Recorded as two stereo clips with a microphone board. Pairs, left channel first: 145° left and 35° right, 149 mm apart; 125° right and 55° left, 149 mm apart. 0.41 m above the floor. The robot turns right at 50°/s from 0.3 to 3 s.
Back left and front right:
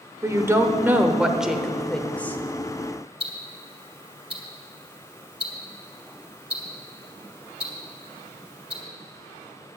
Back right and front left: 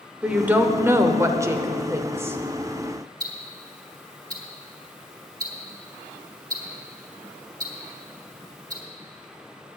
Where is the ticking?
Straight ahead, 1.9 m.